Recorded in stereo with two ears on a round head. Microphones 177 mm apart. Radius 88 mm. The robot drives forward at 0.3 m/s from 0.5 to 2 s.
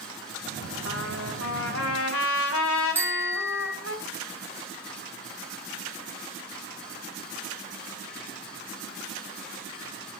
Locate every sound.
0.8 s a trumpet: 85° left, 4 m; by 4.0 s 80° left, 4 m
3.0 s a bicycle bell: 10° right (ahead or behind), 3.5 m